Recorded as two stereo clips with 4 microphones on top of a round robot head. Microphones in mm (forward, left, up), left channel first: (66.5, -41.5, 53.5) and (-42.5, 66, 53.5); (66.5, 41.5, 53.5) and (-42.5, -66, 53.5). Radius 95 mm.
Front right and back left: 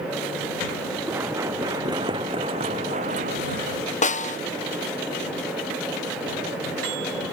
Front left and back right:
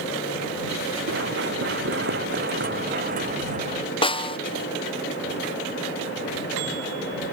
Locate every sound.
1.1 s running footsteps: 145° right; by 3.8 s 175° left
4.0 s a snare drum: 10° right